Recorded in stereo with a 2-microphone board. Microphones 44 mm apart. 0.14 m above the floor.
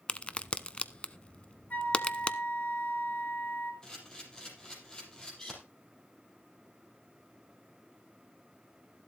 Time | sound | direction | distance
0.1 | a crack | 25° left (ahead or behind) | 0.7 m
1.7 | a flute | 40° left (ahead or behind) | 2.5 m
3.8 | a camera shutter | 20° left (ahead or behind) | 5 m